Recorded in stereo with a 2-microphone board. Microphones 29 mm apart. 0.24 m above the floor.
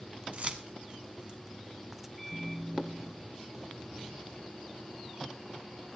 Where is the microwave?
10° left (ahead or behind), 3 m.